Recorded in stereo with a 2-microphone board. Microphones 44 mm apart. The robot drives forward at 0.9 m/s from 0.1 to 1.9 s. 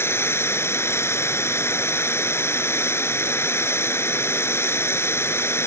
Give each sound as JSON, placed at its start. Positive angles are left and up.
{"t": 0.0, "sound": "running water", "side_deg": 70}